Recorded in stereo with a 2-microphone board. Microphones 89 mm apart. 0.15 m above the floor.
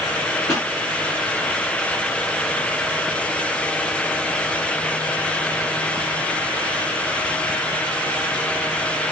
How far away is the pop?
About 1.5 m.